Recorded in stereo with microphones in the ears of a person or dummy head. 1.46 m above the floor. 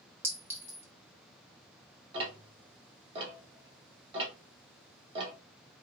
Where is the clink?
5° right (ahead or behind), 0.7 m.